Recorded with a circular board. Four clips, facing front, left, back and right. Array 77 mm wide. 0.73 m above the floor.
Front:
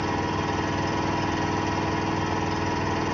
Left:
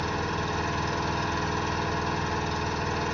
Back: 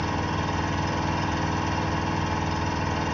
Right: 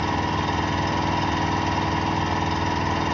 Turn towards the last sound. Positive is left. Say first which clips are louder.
# right 6 dB, front 1 dB
turn(degrees=-90)